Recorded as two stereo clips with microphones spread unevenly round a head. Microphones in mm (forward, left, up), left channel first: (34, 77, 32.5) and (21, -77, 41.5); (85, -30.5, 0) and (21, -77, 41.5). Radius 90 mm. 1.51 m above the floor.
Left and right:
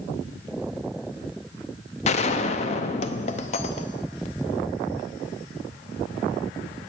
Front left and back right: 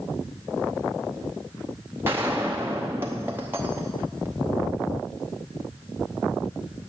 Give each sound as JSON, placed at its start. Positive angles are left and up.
{"t": 2.0, "sound": "a gunshot", "azimuth_deg": 140, "distance_m": 0.6}